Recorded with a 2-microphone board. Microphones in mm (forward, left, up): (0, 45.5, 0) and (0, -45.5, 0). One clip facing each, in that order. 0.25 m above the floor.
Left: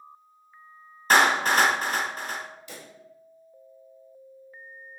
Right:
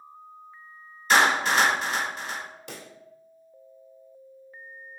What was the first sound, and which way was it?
A clap, 50° left (ahead or behind).